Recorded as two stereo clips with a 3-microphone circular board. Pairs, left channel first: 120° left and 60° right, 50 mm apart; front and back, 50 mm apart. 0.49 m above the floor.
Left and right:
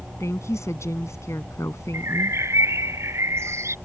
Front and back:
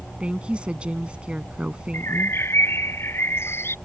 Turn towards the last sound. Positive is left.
turn(degrees=-35)